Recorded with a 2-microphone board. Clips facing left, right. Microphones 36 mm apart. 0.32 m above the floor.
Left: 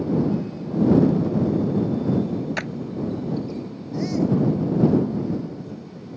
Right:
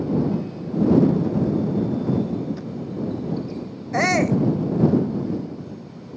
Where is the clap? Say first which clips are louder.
Left 5 dB; 75° left (ahead or behind).